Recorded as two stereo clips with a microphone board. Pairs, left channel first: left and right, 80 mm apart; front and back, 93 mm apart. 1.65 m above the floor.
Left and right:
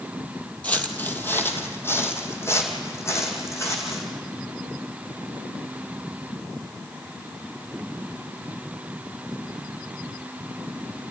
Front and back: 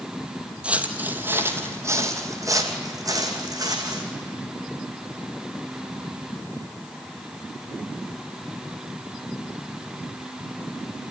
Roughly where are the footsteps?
Behind left.